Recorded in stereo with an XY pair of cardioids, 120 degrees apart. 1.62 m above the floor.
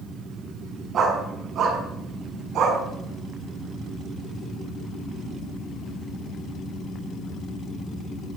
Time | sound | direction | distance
0.9 | a dog barking | 55° right | 4.5 m